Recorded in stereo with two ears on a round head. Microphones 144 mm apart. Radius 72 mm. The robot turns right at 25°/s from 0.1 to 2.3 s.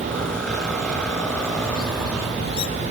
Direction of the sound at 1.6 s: 55° left (ahead or behind).